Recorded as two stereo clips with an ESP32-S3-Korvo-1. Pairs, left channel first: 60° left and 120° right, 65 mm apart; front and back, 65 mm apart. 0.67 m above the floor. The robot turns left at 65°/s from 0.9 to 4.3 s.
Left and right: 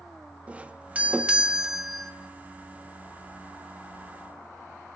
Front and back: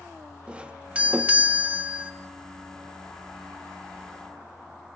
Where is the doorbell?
140° right, 1.0 m; by 2.1 s 140° left, 1.0 m.